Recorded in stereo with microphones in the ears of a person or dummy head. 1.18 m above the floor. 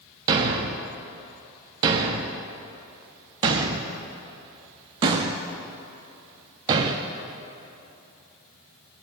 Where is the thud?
25° right (ahead or behind), 0.6 m.